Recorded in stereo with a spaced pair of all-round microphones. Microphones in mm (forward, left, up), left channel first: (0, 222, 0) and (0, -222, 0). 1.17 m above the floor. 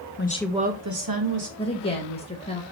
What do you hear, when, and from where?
0.2 s a woman speaking: 30° left (ahead or behind), 0.7 m; by 1.5 s 65° right (ahead or behind), 1.4 m
1.6 s a woman speaking: 20° left (ahead or behind), 1.0 m